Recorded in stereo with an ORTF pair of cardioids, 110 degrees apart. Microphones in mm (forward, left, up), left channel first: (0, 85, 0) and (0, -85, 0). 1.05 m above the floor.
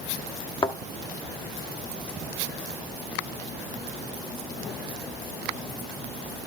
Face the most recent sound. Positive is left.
turn(degrees=30)